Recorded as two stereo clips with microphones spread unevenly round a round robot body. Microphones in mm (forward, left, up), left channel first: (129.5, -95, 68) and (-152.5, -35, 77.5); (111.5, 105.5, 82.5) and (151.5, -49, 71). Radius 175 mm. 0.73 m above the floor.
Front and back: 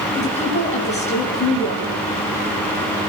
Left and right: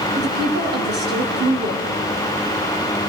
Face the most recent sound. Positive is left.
turn(degrees=-80)